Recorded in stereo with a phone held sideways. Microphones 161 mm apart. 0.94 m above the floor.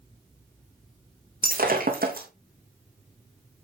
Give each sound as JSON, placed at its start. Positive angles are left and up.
{"t": 1.4, "sound": "breaking glass", "side_deg": -65, "distance_m": 3.0}